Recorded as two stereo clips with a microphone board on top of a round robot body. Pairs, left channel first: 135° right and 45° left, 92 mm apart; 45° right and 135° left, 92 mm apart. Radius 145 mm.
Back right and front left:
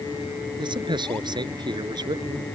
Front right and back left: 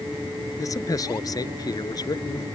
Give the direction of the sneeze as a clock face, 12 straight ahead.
I don't hear a sneeze.